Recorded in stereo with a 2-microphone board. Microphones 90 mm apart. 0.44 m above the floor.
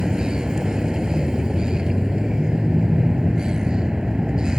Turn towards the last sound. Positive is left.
turn(degrees=-10)  # may be behind; listen again after turning